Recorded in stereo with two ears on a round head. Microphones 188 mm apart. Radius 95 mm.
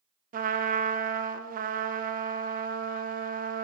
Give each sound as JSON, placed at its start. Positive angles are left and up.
{"t": 0.3, "sound": "a trumpet", "side_deg": -40, "distance_m": 0.7}